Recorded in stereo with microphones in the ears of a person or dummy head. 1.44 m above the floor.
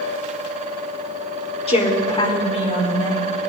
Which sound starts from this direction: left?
A woman speaking, at 1.7 s.